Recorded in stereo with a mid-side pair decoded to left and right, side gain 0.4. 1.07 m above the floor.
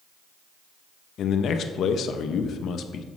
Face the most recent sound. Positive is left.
turn(degrees=70)